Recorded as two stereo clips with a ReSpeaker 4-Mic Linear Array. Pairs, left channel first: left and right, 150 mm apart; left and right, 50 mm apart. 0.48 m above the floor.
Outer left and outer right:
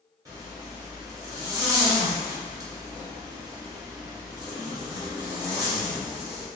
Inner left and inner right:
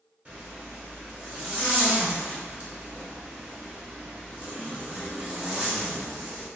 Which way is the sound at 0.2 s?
25° right (ahead or behind).